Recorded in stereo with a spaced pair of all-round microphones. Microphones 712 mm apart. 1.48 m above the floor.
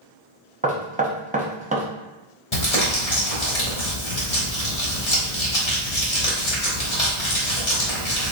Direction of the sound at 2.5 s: 55° left (ahead or behind).